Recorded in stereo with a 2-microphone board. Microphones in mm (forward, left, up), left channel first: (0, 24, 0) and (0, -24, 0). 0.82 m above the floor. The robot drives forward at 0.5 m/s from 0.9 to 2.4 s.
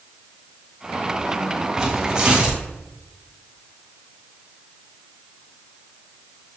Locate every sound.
1.8 s tearing paper: 20° right (ahead or behind), 1.6 m